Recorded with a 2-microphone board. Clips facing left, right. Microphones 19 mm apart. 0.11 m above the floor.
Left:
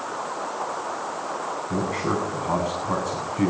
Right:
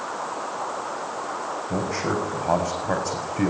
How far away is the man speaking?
About 5.5 m.